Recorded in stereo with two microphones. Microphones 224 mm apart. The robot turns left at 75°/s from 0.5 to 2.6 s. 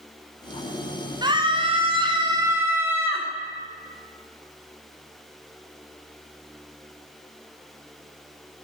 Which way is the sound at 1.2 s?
20° right (ahead or behind).